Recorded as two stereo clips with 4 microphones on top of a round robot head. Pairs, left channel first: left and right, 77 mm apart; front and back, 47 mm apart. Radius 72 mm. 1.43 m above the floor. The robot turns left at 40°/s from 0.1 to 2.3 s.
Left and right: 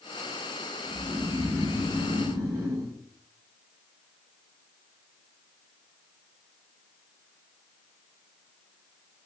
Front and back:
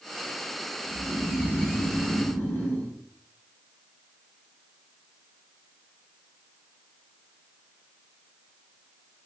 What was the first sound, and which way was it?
Snoring, 15° left.